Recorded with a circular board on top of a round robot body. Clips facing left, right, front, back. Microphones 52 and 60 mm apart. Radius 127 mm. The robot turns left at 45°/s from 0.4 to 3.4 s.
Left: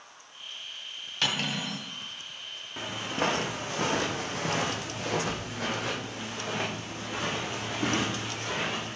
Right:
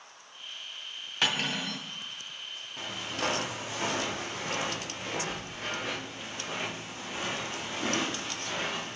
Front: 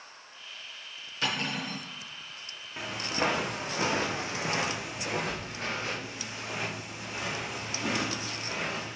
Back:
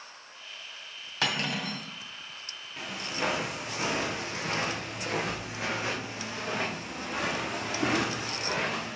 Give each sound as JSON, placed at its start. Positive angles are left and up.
{"t": 1.2, "sound": "cutlery clinking", "azimuth_deg": -160, "distance_m": 2.0}
{"t": 2.8, "sound": "footsteps", "azimuth_deg": 70, "distance_m": 2.5}